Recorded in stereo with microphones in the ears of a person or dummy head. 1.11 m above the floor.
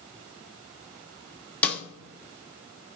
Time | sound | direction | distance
1.6 | a snare drum | 5° left (ahead or behind) | 1.3 m